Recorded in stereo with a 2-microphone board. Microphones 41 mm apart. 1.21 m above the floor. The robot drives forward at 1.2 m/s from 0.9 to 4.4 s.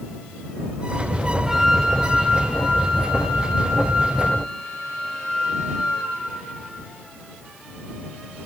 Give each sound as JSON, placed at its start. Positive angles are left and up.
{"t": 1.4, "sound": "a flute", "side_deg": -5, "distance_m": 1.3}